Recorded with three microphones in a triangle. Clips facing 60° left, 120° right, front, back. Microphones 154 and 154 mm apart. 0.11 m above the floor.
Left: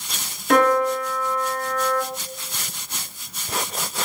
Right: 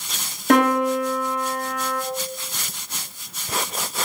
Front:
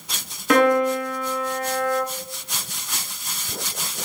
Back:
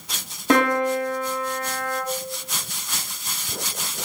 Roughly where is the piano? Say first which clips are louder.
Even, front 2 dB; behind right.